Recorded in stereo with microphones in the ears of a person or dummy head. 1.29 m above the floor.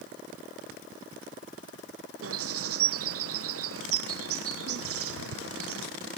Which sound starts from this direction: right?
A bird, at 2.2 s.